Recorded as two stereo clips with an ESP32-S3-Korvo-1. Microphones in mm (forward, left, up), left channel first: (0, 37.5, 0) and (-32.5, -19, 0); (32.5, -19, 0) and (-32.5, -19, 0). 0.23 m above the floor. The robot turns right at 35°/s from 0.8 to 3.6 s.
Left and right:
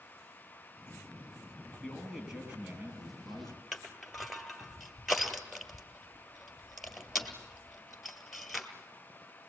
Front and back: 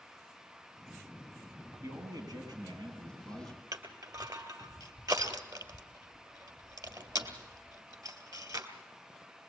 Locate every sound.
1.8 s a man speaking: 145° left, 6 m; by 3.6 s 155° right, 6 m
3.7 s crushing: 150° left, 1.9 m